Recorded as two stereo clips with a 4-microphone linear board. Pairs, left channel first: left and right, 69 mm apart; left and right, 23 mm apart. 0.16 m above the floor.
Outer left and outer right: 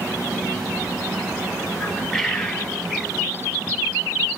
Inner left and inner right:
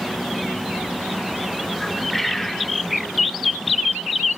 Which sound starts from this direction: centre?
A bird, at 1.8 s.